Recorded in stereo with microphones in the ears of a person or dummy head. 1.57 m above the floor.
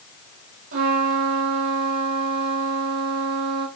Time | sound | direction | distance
0.7 | a trumpet | 75° right (ahead or behind) | 4 m